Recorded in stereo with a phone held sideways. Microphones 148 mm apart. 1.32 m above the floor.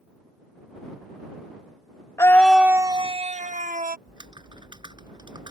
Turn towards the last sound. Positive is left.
turn(degrees=-30)  # may be behind; listen again after turning